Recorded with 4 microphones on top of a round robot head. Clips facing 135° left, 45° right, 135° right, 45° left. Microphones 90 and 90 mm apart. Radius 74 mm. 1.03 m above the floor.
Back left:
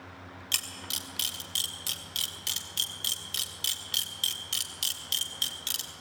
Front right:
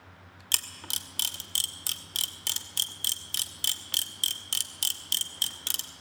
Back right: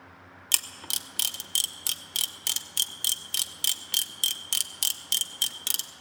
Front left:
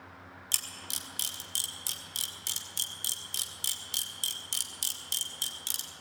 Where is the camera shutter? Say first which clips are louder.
Front right 2 dB, back right 8 dB; 100° right, 1.1 m.